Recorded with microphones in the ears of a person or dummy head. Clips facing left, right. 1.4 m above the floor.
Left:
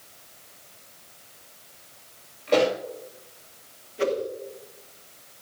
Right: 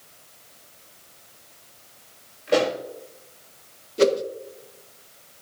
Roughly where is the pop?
Centre.